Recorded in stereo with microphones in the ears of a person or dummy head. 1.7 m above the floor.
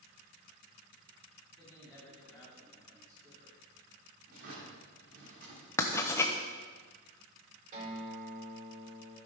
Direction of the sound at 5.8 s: 10° left (ahead or behind).